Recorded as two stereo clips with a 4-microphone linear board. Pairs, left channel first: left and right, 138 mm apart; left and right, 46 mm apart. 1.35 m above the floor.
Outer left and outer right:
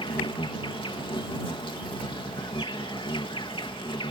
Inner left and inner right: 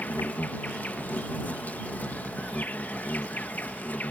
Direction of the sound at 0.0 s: 40° left (ahead or behind).